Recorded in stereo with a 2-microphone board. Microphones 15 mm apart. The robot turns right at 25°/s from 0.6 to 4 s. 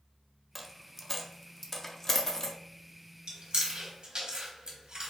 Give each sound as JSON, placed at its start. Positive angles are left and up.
{"t": 0.6, "sound": "a dropped coin", "side_deg": 0, "distance_m": 0.5}
{"t": 3.3, "sound": "chewing", "side_deg": -75, "distance_m": 1.3}